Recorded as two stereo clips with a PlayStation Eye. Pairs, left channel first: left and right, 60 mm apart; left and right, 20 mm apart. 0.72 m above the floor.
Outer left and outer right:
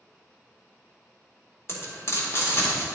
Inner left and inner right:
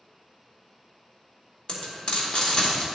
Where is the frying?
50° left (ahead or behind), 2.0 m.